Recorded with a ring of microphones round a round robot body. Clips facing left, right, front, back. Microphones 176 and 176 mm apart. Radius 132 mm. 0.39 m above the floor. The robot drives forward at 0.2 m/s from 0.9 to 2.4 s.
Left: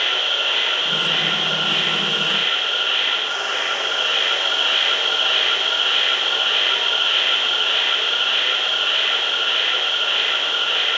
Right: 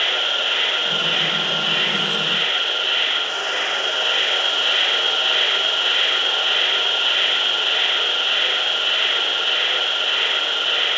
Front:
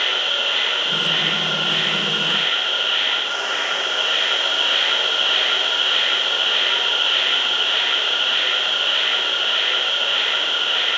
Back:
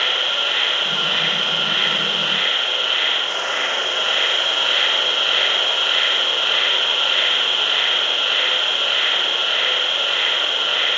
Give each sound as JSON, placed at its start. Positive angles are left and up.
{"t": 0.0, "sound": "an insect", "azimuth_deg": -140, "distance_m": 1.4}